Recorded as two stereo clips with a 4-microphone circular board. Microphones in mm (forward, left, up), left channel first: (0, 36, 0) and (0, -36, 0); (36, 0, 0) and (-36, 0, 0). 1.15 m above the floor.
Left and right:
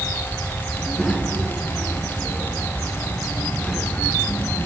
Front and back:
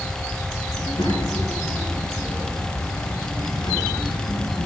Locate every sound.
0.7 s a child speaking: 10° left, 8 m